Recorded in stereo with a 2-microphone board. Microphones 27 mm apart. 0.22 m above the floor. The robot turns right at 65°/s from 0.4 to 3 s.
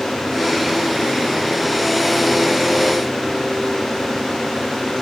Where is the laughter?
No laughter in this recording.